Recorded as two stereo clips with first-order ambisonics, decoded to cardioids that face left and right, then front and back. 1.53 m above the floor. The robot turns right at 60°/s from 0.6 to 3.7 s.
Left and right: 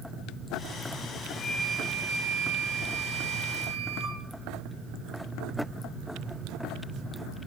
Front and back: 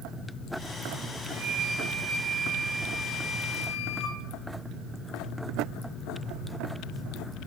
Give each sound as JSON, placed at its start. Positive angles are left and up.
{"t": 1.3, "sound": "a flute", "azimuth_deg": 175, "distance_m": 0.9}